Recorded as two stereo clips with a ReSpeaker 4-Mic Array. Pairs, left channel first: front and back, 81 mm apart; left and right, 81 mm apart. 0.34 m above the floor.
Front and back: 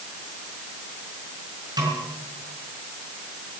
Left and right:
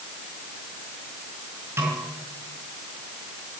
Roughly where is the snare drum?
Behind right.